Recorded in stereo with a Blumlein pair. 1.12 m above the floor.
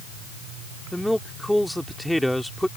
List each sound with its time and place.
0.9 s a man speaking: straight ahead